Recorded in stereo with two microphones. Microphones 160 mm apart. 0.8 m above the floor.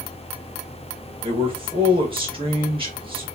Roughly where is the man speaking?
Right.